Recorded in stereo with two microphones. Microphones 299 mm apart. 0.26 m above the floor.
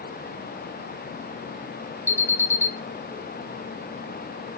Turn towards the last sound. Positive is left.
turn(degrees=10)  # may be behind; listen again after turning